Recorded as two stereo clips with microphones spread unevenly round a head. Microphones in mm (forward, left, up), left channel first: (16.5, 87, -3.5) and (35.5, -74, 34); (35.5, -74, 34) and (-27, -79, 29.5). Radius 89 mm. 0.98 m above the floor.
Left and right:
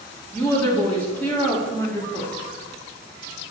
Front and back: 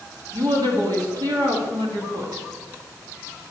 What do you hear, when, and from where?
0.3 s a woman speaking: 175° left, 2 m